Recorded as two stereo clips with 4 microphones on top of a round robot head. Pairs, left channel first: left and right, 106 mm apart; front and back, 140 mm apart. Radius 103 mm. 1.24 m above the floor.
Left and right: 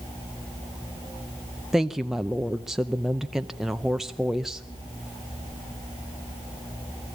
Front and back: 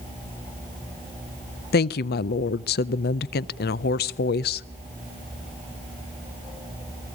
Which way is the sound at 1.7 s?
5° right.